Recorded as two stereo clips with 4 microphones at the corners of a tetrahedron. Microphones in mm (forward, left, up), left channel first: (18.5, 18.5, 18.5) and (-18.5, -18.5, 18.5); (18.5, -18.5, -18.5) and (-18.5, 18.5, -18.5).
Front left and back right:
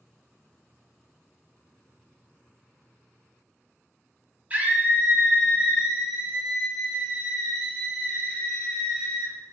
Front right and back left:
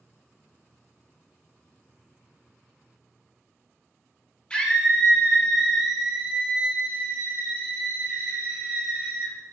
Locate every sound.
4.5 s a scream: 100° right, 1.8 m; by 9.3 s 130° left, 3 m